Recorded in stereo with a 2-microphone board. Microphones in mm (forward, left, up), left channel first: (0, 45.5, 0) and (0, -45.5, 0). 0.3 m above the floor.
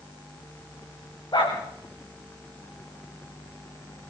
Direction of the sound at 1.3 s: 50° left (ahead or behind).